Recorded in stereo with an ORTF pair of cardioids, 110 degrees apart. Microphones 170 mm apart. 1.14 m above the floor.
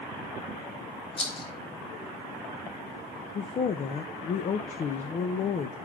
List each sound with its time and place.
1.2 s a rattle: 30° left, 1.9 m
3.4 s a woman speaking: 40° left, 0.8 m